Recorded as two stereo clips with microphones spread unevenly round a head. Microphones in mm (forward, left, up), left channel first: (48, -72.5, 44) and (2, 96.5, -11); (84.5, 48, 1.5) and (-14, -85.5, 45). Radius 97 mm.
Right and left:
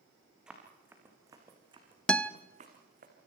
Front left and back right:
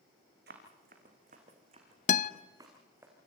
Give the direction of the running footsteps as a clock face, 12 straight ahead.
5 o'clock.